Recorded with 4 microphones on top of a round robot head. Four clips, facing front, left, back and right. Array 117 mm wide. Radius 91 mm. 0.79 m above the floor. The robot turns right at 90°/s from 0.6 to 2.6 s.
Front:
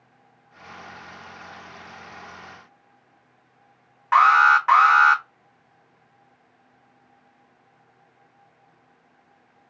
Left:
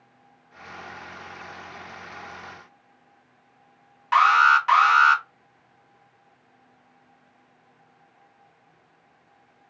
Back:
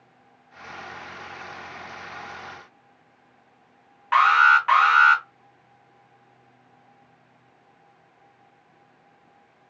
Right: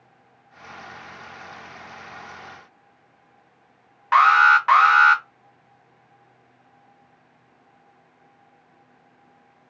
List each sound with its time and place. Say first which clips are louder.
4.1 s an alarm: right 2 dB, front 2 dB; 65° right, 1.3 m